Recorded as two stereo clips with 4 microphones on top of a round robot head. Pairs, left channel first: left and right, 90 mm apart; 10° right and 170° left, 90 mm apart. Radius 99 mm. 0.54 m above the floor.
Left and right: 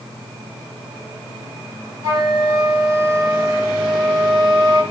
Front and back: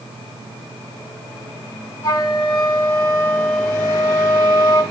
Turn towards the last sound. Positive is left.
turn(degrees=-50)